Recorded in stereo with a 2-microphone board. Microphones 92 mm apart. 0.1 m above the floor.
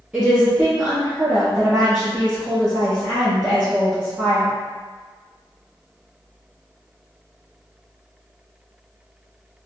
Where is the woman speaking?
10° right (ahead or behind), 2.0 m.